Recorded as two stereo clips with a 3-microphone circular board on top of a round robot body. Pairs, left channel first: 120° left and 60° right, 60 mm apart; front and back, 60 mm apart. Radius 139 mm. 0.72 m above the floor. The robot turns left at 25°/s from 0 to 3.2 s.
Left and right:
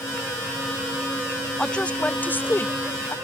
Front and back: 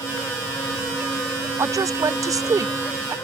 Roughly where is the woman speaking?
Behind.